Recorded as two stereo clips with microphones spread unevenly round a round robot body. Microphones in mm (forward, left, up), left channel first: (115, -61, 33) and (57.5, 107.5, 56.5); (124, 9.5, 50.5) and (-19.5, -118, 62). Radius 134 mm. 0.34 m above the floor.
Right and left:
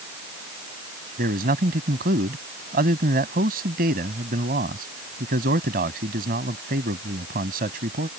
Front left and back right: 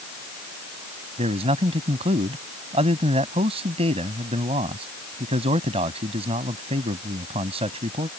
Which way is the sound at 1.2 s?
155° left.